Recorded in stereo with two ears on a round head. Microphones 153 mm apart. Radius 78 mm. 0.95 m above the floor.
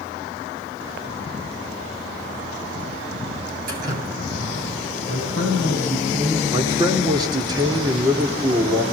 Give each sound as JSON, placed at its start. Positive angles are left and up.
{"t": 3.7, "sound": "dripping", "side_deg": -55, "distance_m": 6.0}
{"t": 5.1, "sound": "a man speaking", "side_deg": -80, "distance_m": 5.5}
{"t": 6.5, "sound": "a man speaking", "side_deg": -25, "distance_m": 3.0}